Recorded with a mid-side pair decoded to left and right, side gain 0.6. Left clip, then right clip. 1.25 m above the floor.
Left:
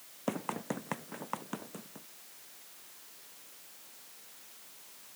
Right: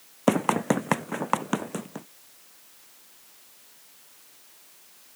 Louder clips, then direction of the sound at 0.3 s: Right 14 dB; 60° right.